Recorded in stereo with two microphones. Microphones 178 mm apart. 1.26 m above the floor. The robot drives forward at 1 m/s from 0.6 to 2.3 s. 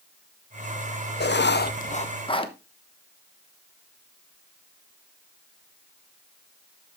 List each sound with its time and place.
1.2 s writing: 70° left (ahead or behind), 0.6 m; by 2.5 s 30° left (ahead or behind), 1.1 m